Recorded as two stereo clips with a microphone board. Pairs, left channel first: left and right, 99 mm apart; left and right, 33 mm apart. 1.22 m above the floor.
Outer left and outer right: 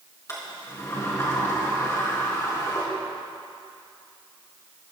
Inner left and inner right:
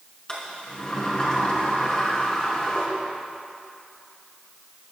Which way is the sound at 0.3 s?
30° left (ahead or behind).